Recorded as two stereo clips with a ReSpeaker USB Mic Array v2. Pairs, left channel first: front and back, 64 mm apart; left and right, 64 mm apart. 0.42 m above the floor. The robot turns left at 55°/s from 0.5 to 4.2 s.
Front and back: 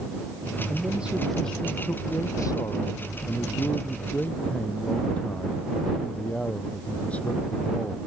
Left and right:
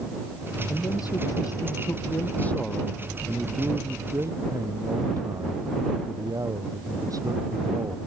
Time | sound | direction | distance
0.7 | a man speaking | 125° left | ?